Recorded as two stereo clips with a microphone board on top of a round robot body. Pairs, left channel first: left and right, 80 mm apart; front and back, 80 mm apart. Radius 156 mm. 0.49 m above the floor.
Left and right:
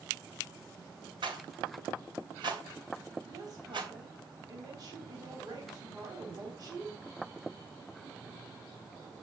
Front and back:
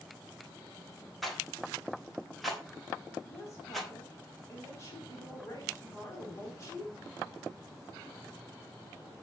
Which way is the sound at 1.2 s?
90° right.